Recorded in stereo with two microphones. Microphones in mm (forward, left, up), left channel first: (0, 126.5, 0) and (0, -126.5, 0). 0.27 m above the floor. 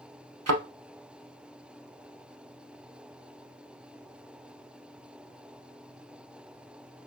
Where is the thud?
80° right, 0.6 m.